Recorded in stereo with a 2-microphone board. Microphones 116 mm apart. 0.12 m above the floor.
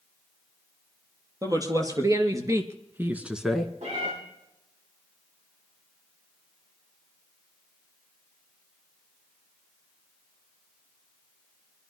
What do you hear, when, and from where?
1.4 s a woman speaking: 30° right (ahead or behind), 3 m; by 3.7 s 5° left (ahead or behind), 1.2 m
3.8 s a cat meowing: 80° right, 9.5 m